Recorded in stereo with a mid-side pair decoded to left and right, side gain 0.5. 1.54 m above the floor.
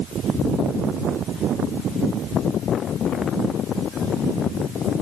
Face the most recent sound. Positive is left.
No sound to turn to.